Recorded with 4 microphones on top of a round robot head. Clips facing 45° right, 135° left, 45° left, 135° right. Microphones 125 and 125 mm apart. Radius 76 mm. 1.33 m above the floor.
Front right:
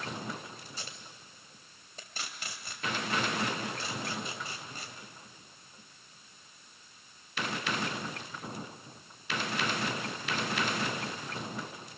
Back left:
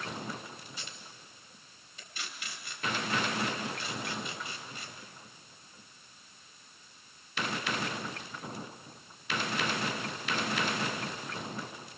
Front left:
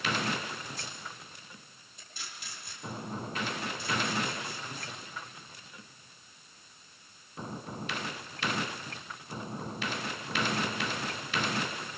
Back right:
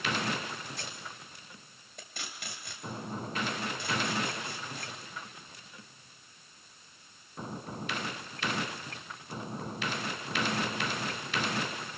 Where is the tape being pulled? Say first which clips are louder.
Front right 1 dB, even; 100° right, 2.5 m.